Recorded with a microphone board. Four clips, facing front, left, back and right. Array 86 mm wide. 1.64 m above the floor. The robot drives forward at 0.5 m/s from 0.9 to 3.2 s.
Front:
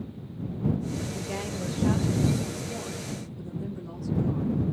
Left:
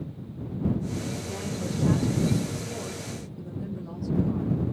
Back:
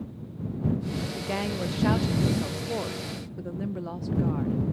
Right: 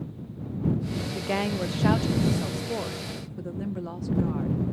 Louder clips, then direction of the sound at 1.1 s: Right 6 dB, back 3 dB; 105° right.